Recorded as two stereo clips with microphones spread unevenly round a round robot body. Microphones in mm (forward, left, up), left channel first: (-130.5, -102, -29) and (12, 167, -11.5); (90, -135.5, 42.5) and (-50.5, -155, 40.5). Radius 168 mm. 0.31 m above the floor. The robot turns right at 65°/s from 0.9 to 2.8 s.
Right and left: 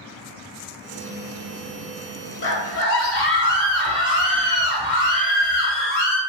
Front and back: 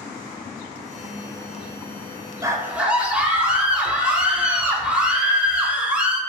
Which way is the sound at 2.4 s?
120° right.